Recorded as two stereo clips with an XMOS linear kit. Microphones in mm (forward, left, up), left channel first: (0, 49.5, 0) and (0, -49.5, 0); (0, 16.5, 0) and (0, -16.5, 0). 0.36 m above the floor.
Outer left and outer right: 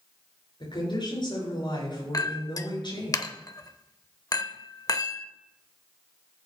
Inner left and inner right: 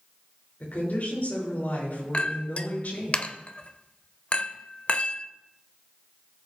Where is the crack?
I don't hear a crack.